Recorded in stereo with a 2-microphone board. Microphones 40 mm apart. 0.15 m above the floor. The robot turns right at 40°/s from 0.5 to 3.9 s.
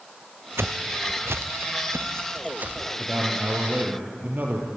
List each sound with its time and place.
0.6 s footsteps: 75° right (ahead or behind), 0.5 m; by 2.9 s 30° right (ahead or behind), 1.9 m
3.0 s a man speaking: 165° right, 3.5 m; by 4.7 s 130° right, 3.5 m